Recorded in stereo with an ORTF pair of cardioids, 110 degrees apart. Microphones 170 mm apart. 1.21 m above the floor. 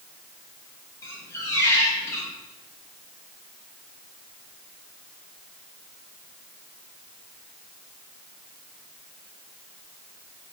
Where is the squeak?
15° left, 0.8 m.